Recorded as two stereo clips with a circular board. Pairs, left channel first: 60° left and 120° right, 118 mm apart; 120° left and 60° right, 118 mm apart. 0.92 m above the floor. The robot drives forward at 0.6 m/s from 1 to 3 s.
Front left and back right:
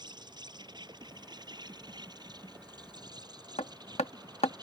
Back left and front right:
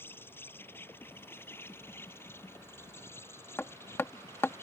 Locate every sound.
0.0 s an insect: 170° right
3.6 s hammering: 50° left